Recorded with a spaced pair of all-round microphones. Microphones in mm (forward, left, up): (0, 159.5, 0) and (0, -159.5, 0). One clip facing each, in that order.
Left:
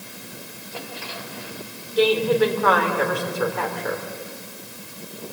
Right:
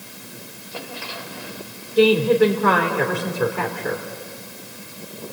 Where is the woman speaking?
35° right (ahead or behind), 2.5 m.